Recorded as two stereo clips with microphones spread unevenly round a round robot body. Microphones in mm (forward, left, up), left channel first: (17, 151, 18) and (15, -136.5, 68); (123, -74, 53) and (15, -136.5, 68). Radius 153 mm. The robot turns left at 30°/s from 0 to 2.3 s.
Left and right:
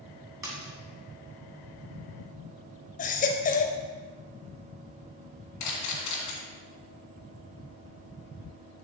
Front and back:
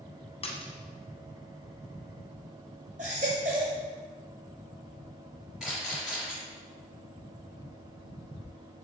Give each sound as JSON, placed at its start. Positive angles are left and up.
{"t": 0.4, "sound": "a splash", "azimuth_deg": -10, "distance_m": 1.7}
{"t": 3.0, "sound": "a baby crying", "azimuth_deg": 155, "distance_m": 0.6}
{"t": 5.6, "sound": "a camera shutter", "azimuth_deg": 125, "distance_m": 2.0}